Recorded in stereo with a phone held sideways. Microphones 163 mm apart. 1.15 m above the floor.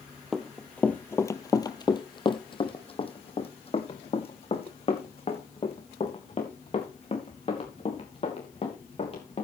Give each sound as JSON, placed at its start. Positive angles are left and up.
{"t": 0.3, "sound": "running footsteps", "side_deg": 0, "distance_m": 1.2}